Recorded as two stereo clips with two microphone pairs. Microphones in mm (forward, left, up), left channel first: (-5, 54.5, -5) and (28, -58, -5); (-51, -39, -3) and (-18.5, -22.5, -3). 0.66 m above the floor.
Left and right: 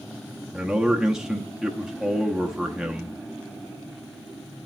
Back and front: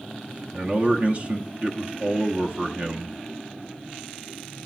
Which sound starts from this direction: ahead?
A man speaking, at 0.5 s.